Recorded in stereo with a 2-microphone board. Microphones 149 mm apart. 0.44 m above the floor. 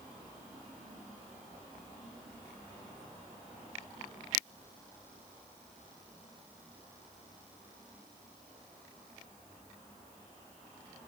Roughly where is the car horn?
No car horn in this recording.